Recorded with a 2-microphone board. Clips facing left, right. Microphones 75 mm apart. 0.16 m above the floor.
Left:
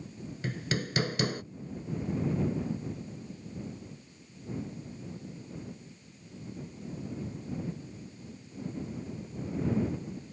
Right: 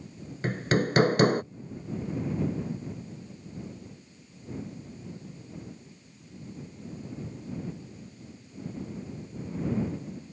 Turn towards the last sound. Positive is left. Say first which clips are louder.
# right 8 dB
turn(degrees=-50)  # may be behind; listen again after turning